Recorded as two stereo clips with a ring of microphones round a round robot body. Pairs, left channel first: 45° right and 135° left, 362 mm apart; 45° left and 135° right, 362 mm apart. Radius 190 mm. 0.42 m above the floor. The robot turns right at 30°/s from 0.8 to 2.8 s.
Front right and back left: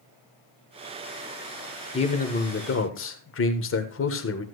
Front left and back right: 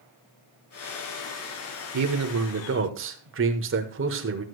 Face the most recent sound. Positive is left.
turn(degrees=-90)